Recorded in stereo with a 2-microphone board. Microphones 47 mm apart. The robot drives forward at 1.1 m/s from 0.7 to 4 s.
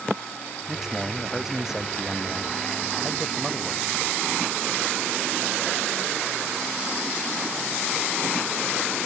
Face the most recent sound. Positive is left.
turn(degrees=-15)  # may be behind; listen again after turning